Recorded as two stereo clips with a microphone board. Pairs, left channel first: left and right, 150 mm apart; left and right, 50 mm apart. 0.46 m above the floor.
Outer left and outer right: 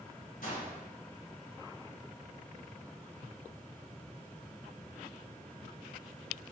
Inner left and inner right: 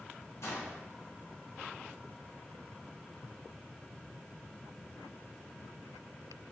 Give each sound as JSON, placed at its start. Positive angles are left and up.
{"t": 0.4, "sound": "a gunshot", "side_deg": 65, "distance_m": 2.5}